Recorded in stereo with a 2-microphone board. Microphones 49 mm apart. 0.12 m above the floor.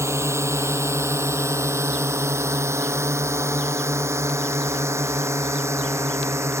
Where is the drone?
65° right (ahead or behind); by 6.6 s 70° right (ahead or behind).